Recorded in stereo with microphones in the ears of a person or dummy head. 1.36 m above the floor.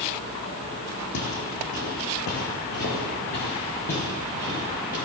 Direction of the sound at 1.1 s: 60° left (ahead or behind).